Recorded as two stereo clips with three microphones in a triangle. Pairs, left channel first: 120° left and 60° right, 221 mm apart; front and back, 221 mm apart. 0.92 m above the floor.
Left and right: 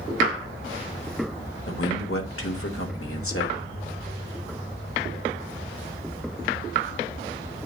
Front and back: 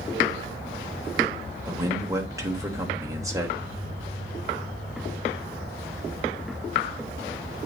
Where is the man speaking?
105° left, 3 m.